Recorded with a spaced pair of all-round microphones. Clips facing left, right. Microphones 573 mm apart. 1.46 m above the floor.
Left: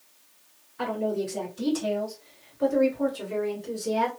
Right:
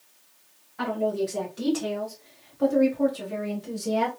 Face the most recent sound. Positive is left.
turn(degrees=-20)  # may be behind; listen again after turning